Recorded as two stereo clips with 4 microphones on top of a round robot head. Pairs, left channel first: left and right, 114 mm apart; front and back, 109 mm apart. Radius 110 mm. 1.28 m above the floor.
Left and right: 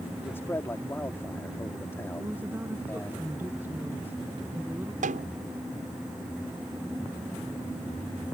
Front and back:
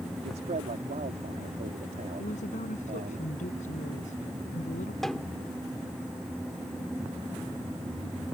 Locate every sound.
0.2 s a man speaking: 160° left
2.2 s a woman speaking: 10° right
5.0 s a snare drum: 90° right